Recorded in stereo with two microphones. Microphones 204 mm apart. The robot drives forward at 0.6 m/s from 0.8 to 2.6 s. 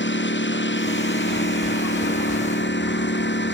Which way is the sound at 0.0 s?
65° left (ahead or behind).